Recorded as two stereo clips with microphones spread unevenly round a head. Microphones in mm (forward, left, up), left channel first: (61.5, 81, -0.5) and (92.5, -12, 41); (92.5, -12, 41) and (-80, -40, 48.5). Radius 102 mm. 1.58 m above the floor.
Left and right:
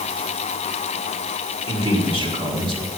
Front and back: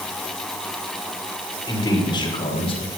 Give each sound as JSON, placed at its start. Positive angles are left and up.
{"t": 1.7, "sound": "a man speaking", "azimuth_deg": -60, "distance_m": 6.5}